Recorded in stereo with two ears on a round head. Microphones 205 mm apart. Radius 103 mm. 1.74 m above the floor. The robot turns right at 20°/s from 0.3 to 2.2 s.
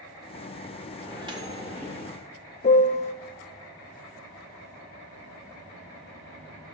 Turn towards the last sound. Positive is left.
turn(degrees=30)  # may be behind; listen again after turning